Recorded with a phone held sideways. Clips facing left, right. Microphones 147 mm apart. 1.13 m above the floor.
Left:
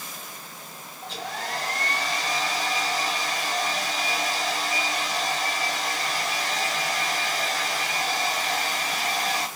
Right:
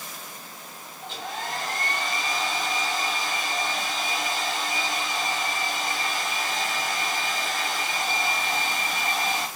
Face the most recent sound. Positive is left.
turn(degrees=40)  # may be behind; listen again after turning